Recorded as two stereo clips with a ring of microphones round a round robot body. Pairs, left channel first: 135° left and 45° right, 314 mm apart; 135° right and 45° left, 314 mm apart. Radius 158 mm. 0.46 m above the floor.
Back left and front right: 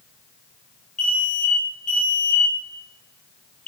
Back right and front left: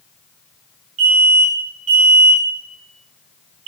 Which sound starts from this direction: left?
An alarm, at 1.0 s.